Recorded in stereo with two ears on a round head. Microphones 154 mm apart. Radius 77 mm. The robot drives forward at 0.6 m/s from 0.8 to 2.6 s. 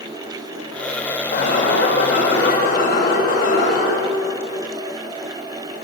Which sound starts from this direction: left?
An alarm, at 1.3 s.